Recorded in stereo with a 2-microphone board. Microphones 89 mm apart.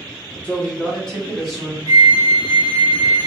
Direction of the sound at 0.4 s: 15° left (ahead or behind).